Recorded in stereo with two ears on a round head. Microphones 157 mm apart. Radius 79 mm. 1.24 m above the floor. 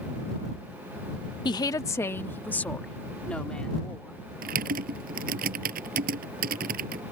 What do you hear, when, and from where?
1.4 s a woman speaking: 25° left (ahead or behind); by 4.2 s 5° left (ahead or behind)
4.4 s typing on a keyboard: 50° right (ahead or behind)